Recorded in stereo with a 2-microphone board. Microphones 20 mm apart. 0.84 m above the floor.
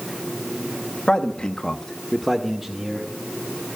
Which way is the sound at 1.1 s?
50° left (ahead or behind).